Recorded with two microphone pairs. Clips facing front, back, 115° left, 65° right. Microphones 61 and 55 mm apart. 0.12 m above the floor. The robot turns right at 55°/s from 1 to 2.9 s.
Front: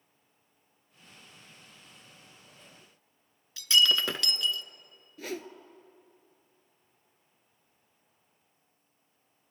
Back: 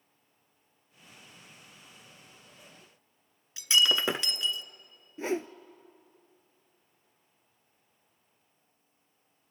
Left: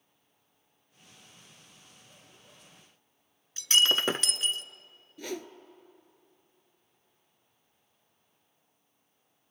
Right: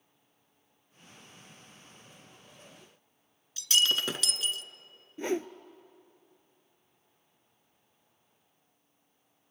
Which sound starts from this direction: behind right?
A whoosh, at 5.2 s.